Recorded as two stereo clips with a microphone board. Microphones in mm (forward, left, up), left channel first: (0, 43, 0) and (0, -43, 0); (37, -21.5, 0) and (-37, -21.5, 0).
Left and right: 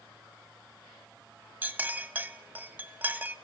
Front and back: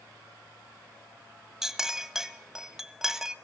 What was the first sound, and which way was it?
A clink, 115° right.